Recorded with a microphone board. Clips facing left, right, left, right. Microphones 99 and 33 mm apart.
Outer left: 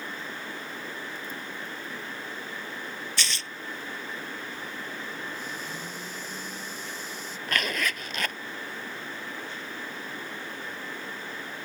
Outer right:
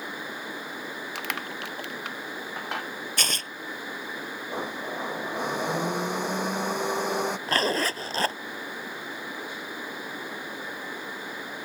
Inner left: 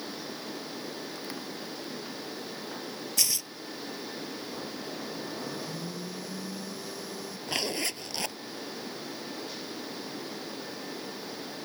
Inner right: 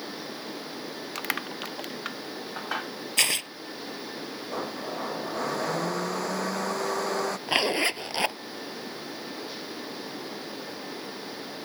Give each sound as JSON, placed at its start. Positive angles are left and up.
{"t": 1.1, "sound": "crushing", "side_deg": -85}
{"t": 3.2, "sound": "tearing paper", "side_deg": -50}
{"t": 4.5, "sound": "a blender", "side_deg": -65}
{"t": 7.5, "sound": "a zipper", "side_deg": -35}